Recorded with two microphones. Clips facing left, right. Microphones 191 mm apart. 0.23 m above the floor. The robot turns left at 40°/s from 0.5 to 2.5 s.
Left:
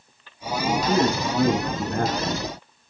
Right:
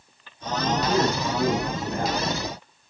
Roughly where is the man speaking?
Behind.